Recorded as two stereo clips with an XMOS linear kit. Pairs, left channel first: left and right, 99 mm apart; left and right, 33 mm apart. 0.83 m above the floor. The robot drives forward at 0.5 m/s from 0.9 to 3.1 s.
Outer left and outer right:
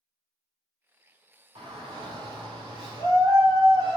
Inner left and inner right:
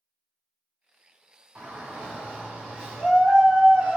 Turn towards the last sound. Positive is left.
turn(degrees=-55)  # may be behind; listen again after turning